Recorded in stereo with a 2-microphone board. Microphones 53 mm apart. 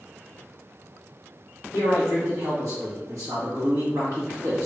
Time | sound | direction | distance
1.7 | a man speaking | 70° right (ahead or behind) | 1.6 m